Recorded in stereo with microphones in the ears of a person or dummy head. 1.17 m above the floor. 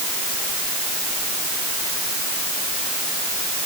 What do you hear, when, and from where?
Only background noise.